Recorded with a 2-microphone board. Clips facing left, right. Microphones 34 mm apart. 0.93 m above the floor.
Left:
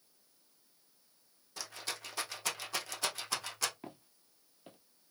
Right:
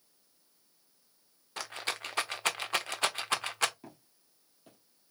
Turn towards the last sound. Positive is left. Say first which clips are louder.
# left 2 dB
turn(degrees=35)  # may be behind; listen again after turning